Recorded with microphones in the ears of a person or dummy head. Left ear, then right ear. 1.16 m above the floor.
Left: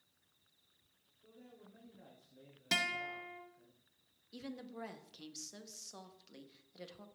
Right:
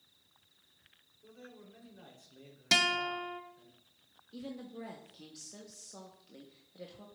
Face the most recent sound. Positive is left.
turn(degrees=35)  # may be behind; listen again after turning